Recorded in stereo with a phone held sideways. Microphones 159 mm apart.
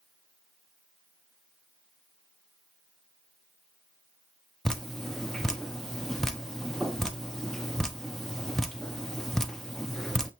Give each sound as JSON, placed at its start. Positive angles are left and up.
{"t": 4.7, "sound": "dripping", "side_deg": 5, "distance_m": 0.5}